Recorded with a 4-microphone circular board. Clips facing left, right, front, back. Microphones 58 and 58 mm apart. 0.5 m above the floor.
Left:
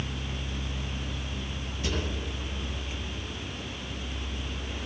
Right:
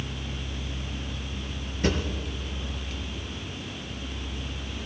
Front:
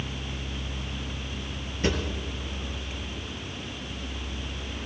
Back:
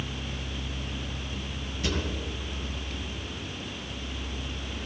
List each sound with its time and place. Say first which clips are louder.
1.8 s a drawer: right 6 dB, front 4 dB; 55° right, 3 m